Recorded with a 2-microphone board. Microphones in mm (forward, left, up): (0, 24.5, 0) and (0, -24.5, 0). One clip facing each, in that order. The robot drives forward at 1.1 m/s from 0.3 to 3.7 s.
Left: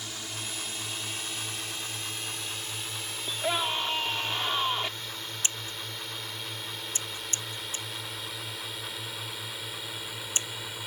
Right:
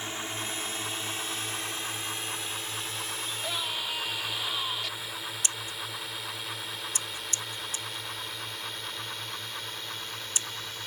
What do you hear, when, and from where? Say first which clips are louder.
0.0 s a drone: right 4 dB; 30° right (ahead or behind); by 10.9 s 10° left (ahead or behind)
3.3 s a scream: left 7 dB; 35° left (ahead or behind); by 4.9 s 30° left (ahead or behind)
5.4 s scissors: even; 35° left (ahead or behind)